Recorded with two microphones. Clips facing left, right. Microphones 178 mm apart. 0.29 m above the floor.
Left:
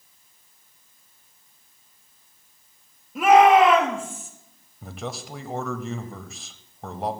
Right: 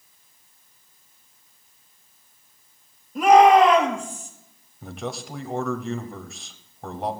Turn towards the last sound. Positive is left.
turn(degrees=0)  # may be behind; listen again after turning